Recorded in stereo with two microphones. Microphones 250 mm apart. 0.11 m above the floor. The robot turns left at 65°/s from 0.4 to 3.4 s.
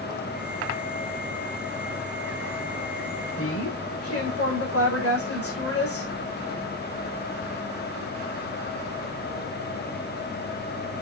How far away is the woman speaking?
About 7 m.